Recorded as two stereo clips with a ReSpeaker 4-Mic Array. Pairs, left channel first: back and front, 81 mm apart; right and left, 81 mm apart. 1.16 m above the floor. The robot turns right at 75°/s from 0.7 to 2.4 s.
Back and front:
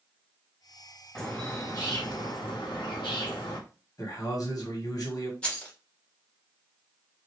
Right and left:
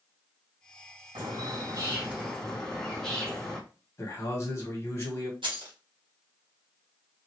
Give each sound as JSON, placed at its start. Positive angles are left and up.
{"t": 1.1, "sound": "a bird", "azimuth_deg": 90, "distance_m": 1.2}
{"t": 4.0, "sound": "a man speaking", "azimuth_deg": -140, "distance_m": 1.4}
{"t": 5.4, "sound": "keys jangling", "azimuth_deg": 105, "distance_m": 1.2}